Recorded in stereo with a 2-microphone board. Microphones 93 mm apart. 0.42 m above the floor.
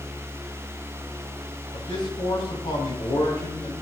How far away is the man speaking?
About 4 m.